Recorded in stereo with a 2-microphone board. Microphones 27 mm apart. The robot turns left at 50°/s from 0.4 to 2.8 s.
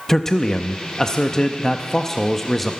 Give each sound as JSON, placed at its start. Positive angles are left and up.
{"t": 0.1, "sound": "a man speaking", "side_deg": 20, "distance_m": 0.6}